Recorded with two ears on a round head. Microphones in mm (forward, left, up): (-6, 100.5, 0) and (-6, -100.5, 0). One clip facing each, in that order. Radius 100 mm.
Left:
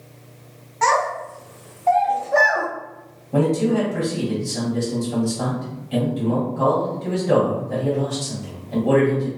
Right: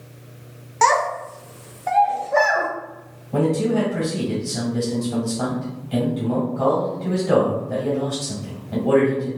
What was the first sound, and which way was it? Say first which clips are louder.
A child speaking: right 1 dB; 60° right (ahead or behind).